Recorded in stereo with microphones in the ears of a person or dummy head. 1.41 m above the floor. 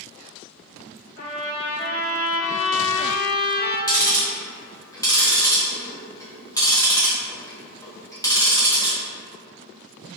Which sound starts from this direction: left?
A trumpet, at 1.2 s.